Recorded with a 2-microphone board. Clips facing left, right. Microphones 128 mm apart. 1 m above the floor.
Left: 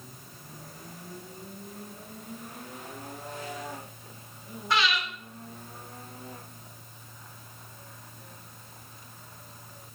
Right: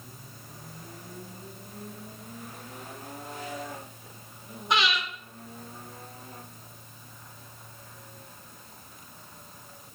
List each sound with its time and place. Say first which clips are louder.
4.7 s breathing: even; 20° right (ahead or behind), 2 m